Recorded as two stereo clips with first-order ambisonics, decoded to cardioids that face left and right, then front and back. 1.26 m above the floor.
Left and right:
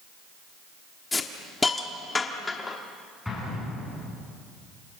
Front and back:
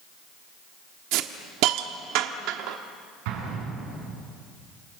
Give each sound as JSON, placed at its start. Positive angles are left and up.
{"t": 1.1, "sound": "a hiss", "azimuth_deg": 165, "distance_m": 1.3}
{"t": 3.2, "sound": "an explosion", "azimuth_deg": 175, "distance_m": 9.5}